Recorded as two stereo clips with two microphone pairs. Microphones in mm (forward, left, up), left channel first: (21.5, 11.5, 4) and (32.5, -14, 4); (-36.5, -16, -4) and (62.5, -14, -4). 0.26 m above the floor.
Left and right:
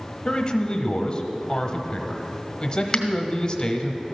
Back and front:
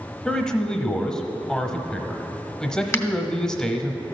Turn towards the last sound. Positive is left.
turn(degrees=150)